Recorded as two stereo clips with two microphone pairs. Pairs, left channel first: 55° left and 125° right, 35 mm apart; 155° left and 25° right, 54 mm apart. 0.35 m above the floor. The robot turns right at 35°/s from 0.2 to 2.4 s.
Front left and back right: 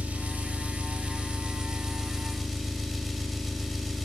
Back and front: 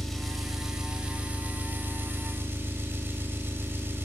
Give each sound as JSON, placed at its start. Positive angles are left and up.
{"t": 0.0, "sound": "an engine running", "azimuth_deg": -120, "distance_m": 1.7}